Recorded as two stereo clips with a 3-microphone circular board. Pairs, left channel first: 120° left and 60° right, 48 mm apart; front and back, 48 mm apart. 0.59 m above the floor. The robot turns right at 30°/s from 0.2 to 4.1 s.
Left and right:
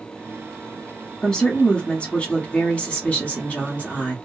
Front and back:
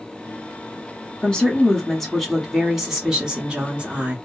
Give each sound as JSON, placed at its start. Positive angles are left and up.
{"t": 1.2, "sound": "a woman speaking", "azimuth_deg": 60, "distance_m": 1.1}